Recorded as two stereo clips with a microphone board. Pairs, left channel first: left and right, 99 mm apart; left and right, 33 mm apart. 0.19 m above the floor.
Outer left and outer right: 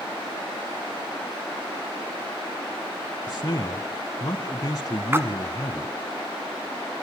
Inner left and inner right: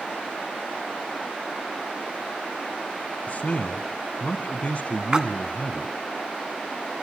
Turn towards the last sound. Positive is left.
turn(degrees=-25)  # may be behind; listen again after turning